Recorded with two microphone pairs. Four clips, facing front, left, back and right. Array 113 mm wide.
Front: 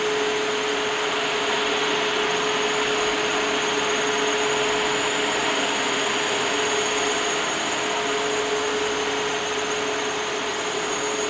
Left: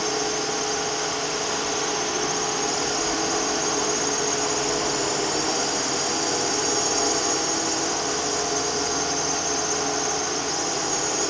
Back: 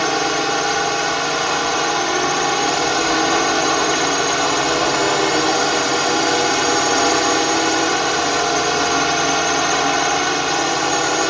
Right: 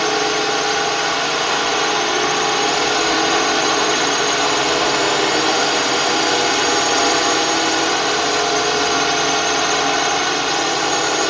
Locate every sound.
0.0 s a drone: 140° right